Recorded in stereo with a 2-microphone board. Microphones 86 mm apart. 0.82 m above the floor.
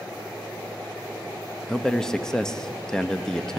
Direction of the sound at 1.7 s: 5° left (ahead or behind).